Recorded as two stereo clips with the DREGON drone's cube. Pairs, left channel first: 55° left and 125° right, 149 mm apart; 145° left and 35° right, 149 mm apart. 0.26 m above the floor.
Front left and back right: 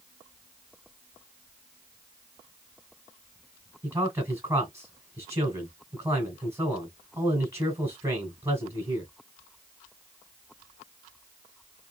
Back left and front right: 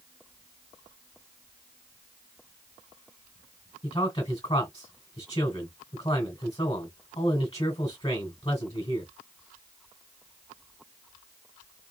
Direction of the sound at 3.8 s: 175° left.